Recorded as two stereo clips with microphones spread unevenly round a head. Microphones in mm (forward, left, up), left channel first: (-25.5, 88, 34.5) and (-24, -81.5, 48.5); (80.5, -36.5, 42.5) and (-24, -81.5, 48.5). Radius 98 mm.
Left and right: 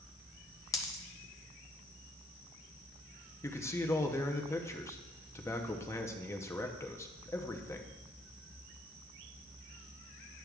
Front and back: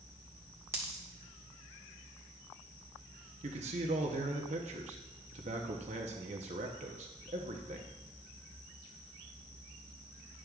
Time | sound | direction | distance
0.7 | a dropped coin | 155° left | 0.6 m
3.4 | a man speaking | 165° left | 0.8 m